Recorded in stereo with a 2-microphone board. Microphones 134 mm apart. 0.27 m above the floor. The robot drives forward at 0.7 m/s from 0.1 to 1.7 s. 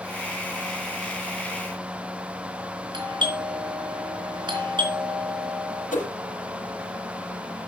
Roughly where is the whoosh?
Left.